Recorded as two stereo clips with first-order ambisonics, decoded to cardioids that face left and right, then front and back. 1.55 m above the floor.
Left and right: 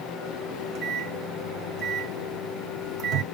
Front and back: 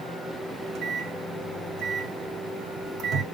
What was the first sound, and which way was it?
A microwave, 135° right.